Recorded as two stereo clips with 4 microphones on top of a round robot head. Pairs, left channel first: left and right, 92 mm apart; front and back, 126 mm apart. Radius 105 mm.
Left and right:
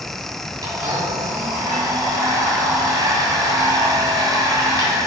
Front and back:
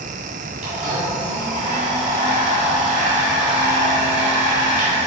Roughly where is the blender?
Behind right.